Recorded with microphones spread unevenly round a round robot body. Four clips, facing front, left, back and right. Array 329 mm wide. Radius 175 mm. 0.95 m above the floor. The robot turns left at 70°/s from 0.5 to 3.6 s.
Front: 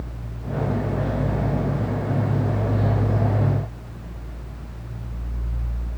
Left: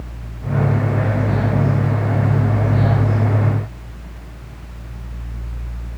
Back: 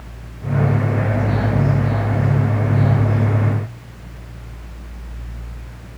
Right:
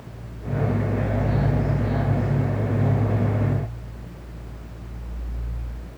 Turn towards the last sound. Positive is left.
No sound to turn to.